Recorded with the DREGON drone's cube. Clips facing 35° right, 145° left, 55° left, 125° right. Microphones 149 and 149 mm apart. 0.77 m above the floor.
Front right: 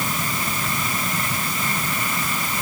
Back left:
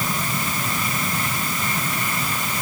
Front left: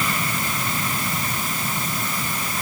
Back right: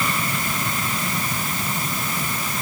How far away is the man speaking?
No man speaking in this recording.